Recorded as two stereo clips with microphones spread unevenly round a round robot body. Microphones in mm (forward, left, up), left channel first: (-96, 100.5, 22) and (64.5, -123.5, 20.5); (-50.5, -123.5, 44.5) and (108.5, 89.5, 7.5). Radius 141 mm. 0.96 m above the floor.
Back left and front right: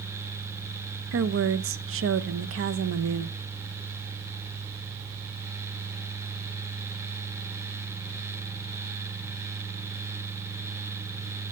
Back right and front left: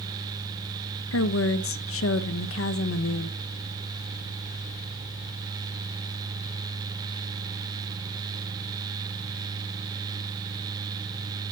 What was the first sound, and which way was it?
A woman speaking, 90° right.